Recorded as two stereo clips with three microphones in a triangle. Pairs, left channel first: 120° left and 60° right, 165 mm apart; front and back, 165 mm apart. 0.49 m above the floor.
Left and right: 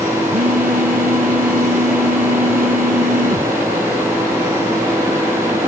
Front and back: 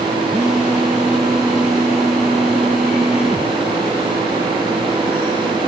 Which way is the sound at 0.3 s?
90° right.